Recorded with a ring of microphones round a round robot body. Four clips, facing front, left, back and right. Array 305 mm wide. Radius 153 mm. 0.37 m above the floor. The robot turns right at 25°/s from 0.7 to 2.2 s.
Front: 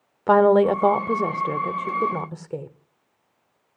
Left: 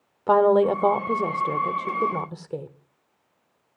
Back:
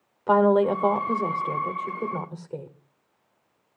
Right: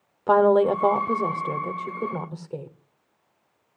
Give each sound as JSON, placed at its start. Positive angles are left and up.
{"t": 0.3, "sound": "a woman speaking", "azimuth_deg": -5, "distance_m": 0.8}